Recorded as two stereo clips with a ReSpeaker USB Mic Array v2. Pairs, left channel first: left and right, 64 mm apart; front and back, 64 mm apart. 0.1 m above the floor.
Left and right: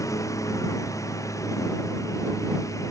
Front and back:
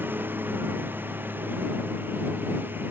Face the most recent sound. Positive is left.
turn(degrees=120)